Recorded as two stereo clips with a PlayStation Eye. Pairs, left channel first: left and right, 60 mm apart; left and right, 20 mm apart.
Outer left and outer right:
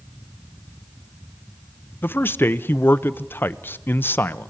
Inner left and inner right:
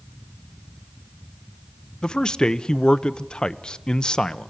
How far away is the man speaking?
About 0.8 m.